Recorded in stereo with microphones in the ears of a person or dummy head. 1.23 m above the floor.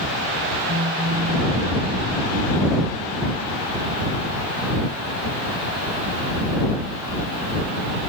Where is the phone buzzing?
55° right (ahead or behind).